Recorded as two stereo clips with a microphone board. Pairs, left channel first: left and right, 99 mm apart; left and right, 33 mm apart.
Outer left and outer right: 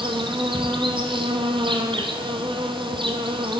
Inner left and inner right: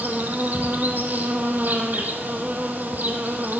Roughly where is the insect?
Right.